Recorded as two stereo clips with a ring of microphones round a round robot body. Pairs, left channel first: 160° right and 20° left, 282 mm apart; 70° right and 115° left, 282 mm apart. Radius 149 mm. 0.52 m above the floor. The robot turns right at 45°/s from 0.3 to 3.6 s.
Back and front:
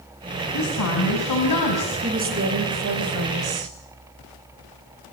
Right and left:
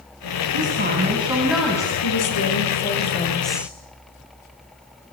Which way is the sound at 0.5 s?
155° left.